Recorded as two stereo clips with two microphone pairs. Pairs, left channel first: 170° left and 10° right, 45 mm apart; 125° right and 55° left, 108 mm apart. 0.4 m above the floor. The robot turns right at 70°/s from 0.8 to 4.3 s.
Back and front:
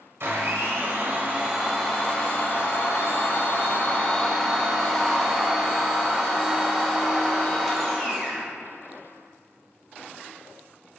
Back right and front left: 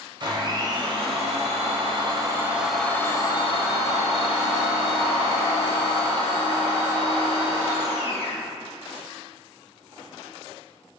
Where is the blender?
15° left, 0.6 m; by 8.5 s 100° right, 0.6 m.